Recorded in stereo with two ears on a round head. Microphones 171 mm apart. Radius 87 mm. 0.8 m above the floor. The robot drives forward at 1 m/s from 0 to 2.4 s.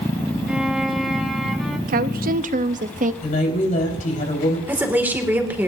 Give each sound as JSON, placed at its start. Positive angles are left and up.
{"t": 0.5, "sound": "a violin", "side_deg": -5, "distance_m": 0.5}
{"t": 1.9, "sound": "a woman speaking", "side_deg": -45, "distance_m": 0.6}
{"t": 3.2, "sound": "a woman speaking", "side_deg": 45, "distance_m": 4.0}
{"t": 4.7, "sound": "a woman speaking", "side_deg": -10, "distance_m": 1.9}